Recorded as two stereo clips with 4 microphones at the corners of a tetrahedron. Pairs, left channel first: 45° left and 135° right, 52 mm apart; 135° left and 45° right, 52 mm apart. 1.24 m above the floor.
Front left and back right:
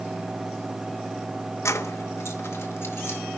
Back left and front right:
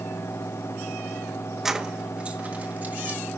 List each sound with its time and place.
1.6 s keys jangling: 35° left, 0.9 m; by 3.2 s 10° left, 2.5 m